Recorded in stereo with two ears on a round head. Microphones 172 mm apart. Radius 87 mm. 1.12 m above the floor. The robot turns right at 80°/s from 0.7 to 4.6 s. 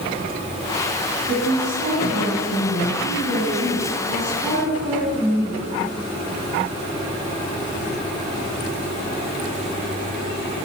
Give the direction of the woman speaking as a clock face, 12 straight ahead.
2 o'clock.